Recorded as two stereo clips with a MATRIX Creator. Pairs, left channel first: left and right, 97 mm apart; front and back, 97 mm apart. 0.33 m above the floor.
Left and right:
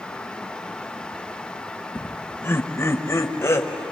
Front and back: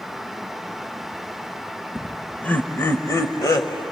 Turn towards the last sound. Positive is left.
turn(degrees=35)